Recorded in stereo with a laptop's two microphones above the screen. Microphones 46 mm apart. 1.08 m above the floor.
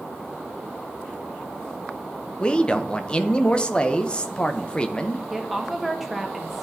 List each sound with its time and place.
2.4 s a man speaking: 20° left (ahead or behind), 0.6 m
5.3 s a woman speaking: 5° right (ahead or behind), 1.5 m